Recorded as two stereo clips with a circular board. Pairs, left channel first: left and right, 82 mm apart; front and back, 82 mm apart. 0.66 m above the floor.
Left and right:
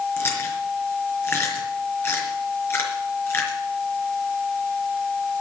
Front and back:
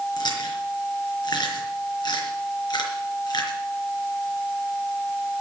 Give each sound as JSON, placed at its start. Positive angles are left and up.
{"t": 0.2, "sound": "chewing", "azimuth_deg": 30, "distance_m": 3.5}